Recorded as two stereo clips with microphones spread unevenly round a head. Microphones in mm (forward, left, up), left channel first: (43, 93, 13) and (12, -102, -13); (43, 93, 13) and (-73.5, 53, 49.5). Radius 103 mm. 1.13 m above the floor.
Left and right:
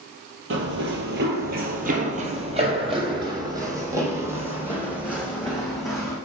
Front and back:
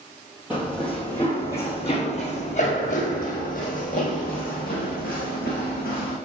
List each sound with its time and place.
0.5 s running footsteps: 95° right, 1.6 m; by 6.2 s 5° right, 3.5 m